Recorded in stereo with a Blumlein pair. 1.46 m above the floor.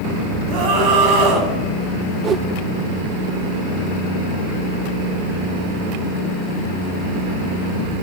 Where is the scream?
35° right, 10 m.